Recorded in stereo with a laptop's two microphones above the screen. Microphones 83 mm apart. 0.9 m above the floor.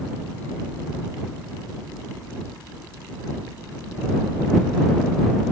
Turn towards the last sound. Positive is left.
No sound to turn to.